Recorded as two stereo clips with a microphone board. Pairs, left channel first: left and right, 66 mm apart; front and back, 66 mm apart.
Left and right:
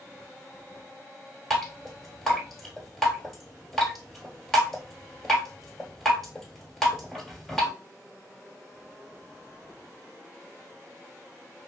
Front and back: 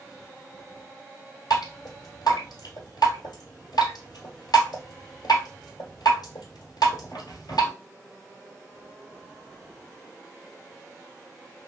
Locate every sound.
1.5 s dripping: straight ahead, 1.5 m